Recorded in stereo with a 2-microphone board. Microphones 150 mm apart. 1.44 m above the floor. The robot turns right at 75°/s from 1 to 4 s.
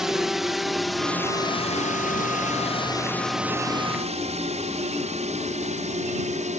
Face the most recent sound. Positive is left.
turn(degrees=-55)  # may be behind; listen again after turning